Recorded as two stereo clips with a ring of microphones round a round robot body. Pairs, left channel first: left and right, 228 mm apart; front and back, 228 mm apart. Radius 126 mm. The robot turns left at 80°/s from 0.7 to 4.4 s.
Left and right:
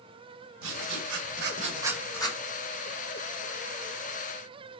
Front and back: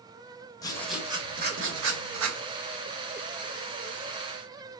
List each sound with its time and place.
0.6 s writing: 75° right, 2 m; by 2.4 s 150° left, 2 m